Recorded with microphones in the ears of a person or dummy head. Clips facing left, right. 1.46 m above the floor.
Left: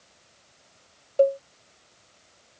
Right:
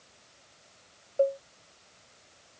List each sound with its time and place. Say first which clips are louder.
1.2 s a cowbell: left 6 dB; 50° left (ahead or behind)